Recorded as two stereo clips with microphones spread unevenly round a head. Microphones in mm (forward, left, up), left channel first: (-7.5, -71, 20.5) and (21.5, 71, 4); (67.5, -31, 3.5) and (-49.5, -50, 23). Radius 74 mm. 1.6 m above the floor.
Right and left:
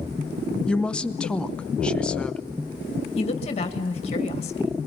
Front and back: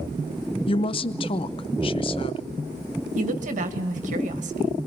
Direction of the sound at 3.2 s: 155° right.